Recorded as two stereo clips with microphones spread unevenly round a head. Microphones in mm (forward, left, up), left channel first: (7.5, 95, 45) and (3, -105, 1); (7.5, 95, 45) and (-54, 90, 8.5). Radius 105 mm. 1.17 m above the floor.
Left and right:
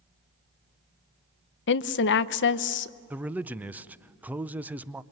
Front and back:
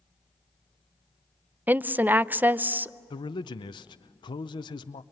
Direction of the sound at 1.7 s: 125° left.